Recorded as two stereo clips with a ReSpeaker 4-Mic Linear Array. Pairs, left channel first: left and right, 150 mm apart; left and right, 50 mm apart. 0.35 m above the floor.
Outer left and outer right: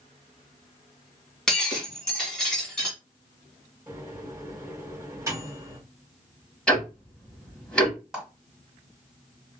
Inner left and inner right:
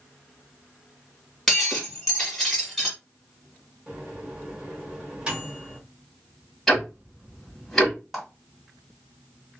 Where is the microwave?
20° right (ahead or behind), 1.3 m.